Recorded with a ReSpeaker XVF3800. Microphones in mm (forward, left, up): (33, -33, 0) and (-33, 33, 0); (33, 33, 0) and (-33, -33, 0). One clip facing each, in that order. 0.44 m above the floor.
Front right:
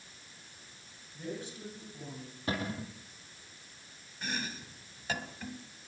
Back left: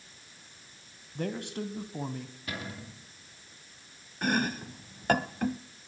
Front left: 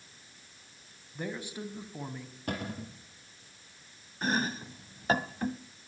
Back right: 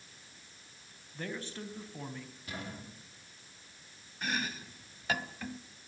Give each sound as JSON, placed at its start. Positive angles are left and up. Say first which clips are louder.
{"t": 1.1, "sound": "a man speaking", "louder": "back left 7 dB, front left 3 dB", "azimuth_deg": 120, "distance_m": 3.0}
{"t": 2.5, "sound": "a cupboard door", "louder": "front right 6 dB, front left 8 dB", "azimuth_deg": 10, "distance_m": 5.5}
{"t": 4.2, "sound": "chopping", "louder": "back left 10 dB, front left 6 dB", "azimuth_deg": 100, "distance_m": 0.9}